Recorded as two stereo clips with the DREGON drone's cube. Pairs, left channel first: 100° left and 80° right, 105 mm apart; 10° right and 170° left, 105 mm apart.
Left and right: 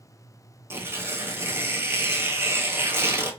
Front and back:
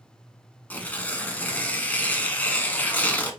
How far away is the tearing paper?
About 0.8 m.